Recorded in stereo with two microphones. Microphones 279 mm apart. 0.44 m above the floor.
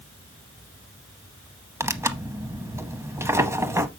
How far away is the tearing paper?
About 0.7 m.